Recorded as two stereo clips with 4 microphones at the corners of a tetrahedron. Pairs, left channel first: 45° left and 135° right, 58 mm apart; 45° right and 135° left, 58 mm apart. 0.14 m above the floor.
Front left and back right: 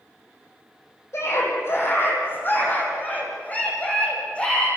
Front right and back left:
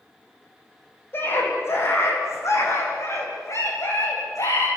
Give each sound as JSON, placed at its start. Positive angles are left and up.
{"t": 1.1, "sound": "a scream", "azimuth_deg": 5, "distance_m": 8.0}